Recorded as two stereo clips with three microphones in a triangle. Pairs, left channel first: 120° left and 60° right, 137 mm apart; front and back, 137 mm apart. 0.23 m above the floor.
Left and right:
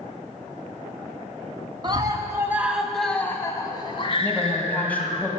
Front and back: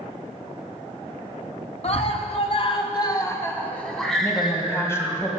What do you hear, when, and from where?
1.8 s a scream: 15° right, 1.8 m; by 5.2 s 105° left, 2.5 m
4.2 s a woman speaking: 50° left, 1.7 m